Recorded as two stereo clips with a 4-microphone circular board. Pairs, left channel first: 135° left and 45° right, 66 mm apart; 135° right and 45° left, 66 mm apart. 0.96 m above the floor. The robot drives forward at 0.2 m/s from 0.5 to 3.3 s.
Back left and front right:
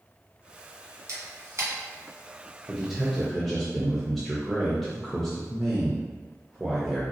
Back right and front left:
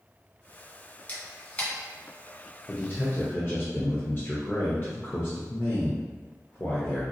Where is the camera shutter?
75° right, 1.5 m; by 1.7 s 80° right, 1.5 m.